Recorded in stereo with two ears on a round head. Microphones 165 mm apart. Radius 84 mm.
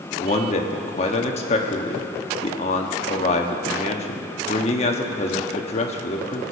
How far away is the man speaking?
About 1.2 m.